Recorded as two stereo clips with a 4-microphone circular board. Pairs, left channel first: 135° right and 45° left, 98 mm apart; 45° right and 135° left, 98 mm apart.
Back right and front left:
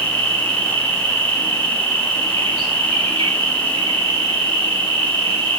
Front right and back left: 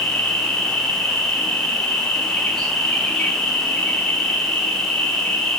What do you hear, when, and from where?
0.0 s an insect: 40° left, 4 m